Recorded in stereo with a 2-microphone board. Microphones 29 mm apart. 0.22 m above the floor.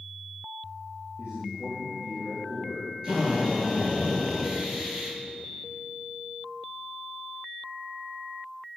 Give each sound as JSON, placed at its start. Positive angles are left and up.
{"t": 1.2, "sound": "a man speaking", "side_deg": -35, "distance_m": 5.0}
{"t": 3.0, "sound": "a drill", "side_deg": -25, "distance_m": 4.5}